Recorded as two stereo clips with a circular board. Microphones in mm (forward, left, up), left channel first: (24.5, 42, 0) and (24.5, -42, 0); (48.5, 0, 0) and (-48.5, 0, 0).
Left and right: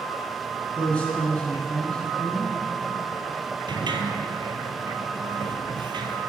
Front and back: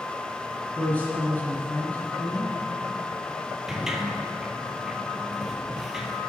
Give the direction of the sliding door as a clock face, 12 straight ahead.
3 o'clock.